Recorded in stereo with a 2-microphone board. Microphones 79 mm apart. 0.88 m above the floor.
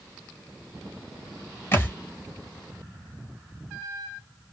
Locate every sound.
1.7 s a thud: 30° left (ahead or behind), 0.8 m